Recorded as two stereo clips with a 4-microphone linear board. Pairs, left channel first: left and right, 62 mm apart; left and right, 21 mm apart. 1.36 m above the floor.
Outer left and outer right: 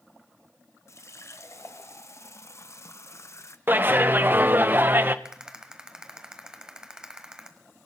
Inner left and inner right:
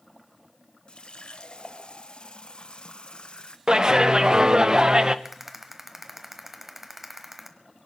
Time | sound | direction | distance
0.9 | a running tap | 50° left (ahead or behind) | 0.8 m
3.7 | a clap | 35° right (ahead or behind) | 0.8 m
5.2 | a rattle | 15° right (ahead or behind) | 1.4 m